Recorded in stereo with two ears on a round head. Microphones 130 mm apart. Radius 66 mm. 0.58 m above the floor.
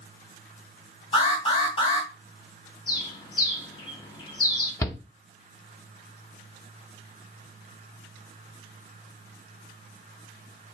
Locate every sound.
1.1 s an alarm: 35° left (ahead or behind), 3 m
2.9 s a bird: 30° left (ahead or behind), 1.4 m
4.8 s a shout: 20° left (ahead or behind), 1.0 m